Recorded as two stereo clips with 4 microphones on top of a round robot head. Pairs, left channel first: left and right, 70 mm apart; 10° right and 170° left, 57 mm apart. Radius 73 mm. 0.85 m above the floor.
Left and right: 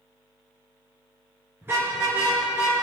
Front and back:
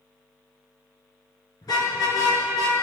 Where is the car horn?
25° right, 5.5 m; by 2.7 s 15° right, 5.5 m.